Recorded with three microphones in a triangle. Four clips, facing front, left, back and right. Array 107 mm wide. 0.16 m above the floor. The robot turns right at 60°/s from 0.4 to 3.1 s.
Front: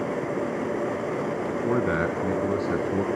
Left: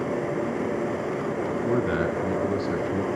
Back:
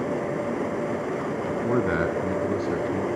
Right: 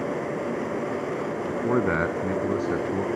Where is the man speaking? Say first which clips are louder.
Right 2 dB, back 1 dB; 110° right, 1.1 m; by 3.1 s 15° right, 1.1 m.